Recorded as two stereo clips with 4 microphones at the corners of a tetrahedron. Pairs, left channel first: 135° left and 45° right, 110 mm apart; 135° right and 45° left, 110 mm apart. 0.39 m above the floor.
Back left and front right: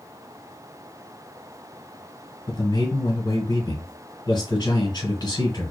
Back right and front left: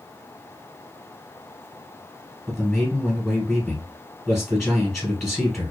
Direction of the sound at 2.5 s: 140° left.